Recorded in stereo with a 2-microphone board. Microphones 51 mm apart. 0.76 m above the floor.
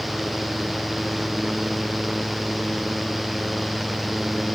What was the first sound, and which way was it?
Only background noise.